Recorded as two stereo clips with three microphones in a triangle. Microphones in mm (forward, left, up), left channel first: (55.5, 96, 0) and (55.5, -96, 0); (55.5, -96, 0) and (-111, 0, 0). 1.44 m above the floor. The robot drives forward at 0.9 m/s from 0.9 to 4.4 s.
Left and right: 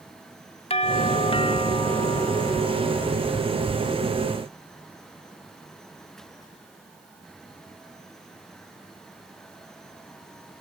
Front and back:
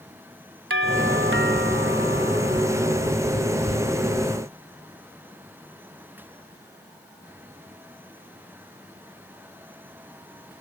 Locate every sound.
0.7 s a doorbell: 150° left; by 3.1 s 160° left